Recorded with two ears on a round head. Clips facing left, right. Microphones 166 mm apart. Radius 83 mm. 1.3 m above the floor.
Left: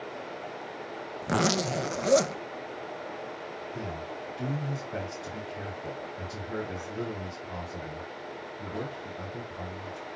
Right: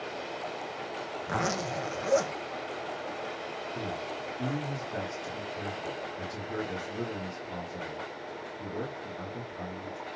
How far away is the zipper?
About 0.5 m.